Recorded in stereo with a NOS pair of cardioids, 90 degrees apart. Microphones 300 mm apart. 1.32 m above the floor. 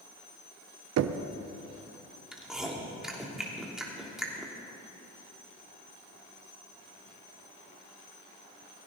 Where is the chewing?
Straight ahead, 3 m.